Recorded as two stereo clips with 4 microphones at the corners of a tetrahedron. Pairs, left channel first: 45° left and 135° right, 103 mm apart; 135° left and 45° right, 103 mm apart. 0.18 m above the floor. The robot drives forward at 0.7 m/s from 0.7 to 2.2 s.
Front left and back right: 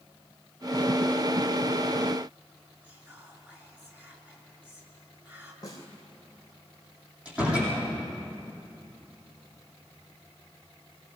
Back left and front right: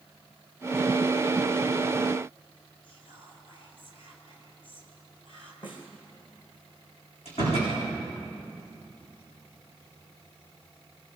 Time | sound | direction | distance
2.8 | whispering | 155° left | 3.5 m
5.6 | a snare drum | 95° left | 3 m
7.2 | a door slam | 150° left | 8.5 m